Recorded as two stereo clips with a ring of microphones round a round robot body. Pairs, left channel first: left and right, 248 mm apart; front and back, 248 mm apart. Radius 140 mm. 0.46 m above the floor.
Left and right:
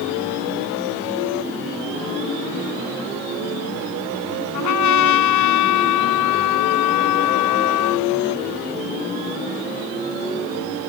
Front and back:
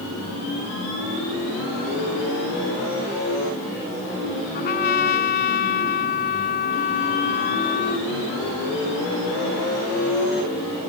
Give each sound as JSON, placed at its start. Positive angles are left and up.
{"t": 4.5, "sound": "a trumpet", "azimuth_deg": 60}